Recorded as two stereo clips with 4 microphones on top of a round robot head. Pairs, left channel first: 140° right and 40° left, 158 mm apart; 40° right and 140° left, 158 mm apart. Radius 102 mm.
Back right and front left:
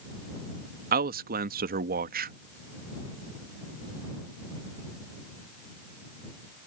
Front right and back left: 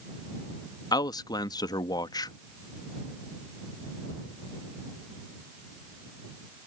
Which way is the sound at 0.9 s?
25° left.